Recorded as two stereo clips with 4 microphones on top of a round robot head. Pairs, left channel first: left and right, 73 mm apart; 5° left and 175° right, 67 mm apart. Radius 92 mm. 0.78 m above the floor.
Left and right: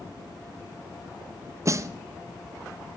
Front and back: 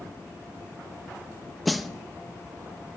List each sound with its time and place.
1.6 s a snare drum: 85° right, 0.7 m